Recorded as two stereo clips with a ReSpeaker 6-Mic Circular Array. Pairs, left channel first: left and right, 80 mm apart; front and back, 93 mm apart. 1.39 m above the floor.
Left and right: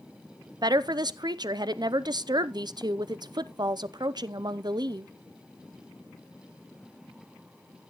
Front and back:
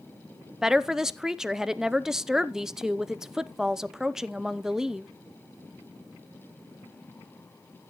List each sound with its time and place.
0.6 s a woman speaking: 95° right, 0.6 m